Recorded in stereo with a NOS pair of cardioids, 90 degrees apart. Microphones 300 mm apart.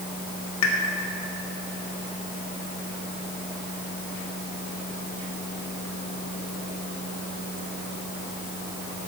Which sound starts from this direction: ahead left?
A pop, at 0.6 s.